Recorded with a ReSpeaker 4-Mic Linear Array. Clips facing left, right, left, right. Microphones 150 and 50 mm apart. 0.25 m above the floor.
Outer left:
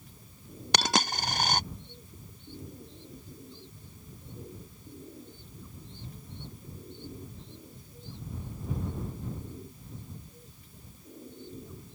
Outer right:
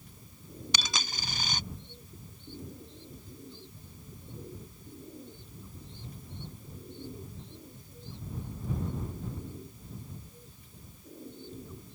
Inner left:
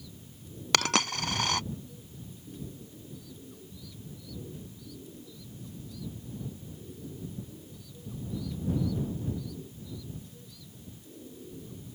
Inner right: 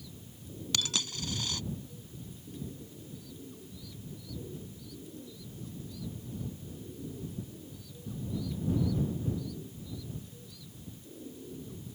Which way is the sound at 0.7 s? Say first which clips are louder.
Outer left 11 dB, inner left 8 dB; 65° left (ahead or behind).